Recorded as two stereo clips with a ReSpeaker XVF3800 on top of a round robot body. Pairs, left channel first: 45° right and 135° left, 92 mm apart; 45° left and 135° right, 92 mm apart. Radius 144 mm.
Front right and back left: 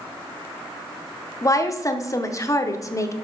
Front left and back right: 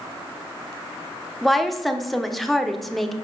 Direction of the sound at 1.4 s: 45° right.